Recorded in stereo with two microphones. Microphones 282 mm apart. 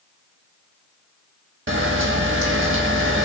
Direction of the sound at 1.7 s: 45° right (ahead or behind).